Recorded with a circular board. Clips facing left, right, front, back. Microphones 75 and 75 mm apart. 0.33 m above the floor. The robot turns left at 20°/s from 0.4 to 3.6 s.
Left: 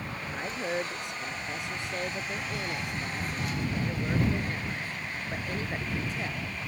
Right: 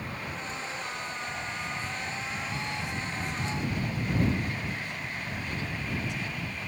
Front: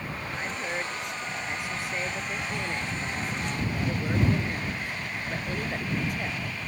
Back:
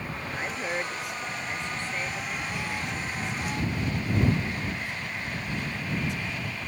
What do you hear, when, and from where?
0.3 s a woman speaking: 105° left; by 6.6 s 40° left